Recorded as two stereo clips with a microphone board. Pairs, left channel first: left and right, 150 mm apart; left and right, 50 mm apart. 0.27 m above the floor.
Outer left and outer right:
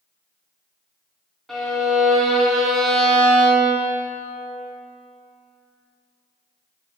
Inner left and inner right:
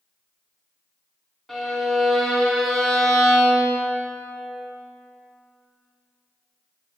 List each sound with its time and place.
1.5 s a violin: centre (ahead or behind), 1.5 m